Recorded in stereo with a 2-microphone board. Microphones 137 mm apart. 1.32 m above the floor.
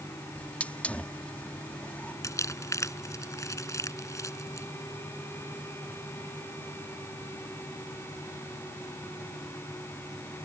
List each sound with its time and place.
0.3 s a hiss: 10° left (ahead or behind)
2.2 s crumpling: 20° left (ahead or behind)